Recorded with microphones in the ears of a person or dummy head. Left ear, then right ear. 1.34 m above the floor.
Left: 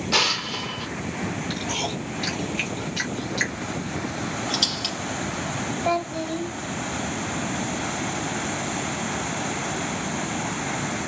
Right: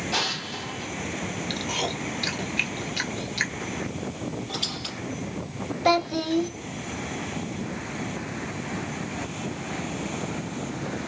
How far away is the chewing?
About 1.4 m.